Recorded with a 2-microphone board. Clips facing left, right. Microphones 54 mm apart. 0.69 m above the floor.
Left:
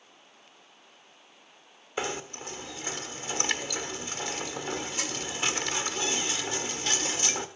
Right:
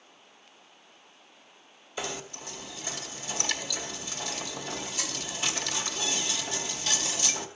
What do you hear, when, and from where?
2.0 s knocking: 45° left (ahead or behind), 1.3 m